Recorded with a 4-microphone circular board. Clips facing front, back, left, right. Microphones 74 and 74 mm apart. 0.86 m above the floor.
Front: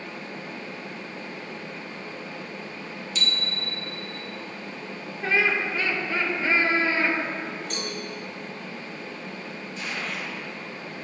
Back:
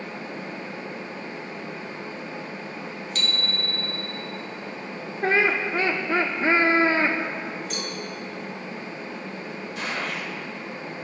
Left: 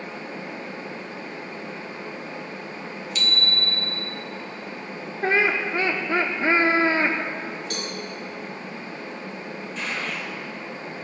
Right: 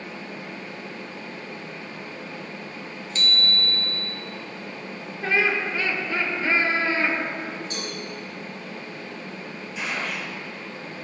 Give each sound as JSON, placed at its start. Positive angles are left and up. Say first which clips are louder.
{"t": 3.1, "sound": "a bicycle bell", "louder": "back 1 dB, right 1 dB", "azimuth_deg": -140, "distance_m": 2.5}
{"t": 5.2, "sound": "laughter", "louder": "back 2 dB, left 2 dB", "azimuth_deg": 135, "distance_m": 1.8}
{"t": 7.7, "sound": "a cowbell", "louder": "back 1 dB, left 1 dB", "azimuth_deg": 90, "distance_m": 5.0}
{"t": 9.8, "sound": "a gunshot", "louder": "back 3 dB, right 1 dB", "azimuth_deg": -175, "distance_m": 4.5}